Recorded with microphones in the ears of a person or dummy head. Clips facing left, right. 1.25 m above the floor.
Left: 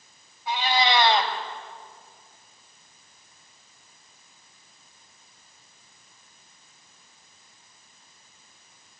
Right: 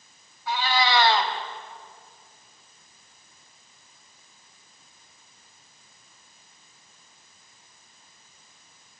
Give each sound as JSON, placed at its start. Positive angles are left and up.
{"t": 0.5, "sound": "a cat meowing", "side_deg": 25, "distance_m": 3.5}